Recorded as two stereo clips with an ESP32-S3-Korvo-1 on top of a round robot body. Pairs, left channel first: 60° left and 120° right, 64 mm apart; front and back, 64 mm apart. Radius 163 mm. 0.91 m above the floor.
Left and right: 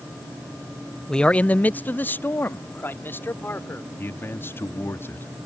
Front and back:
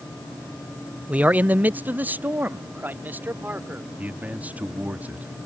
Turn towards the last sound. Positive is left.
turn(degrees=115)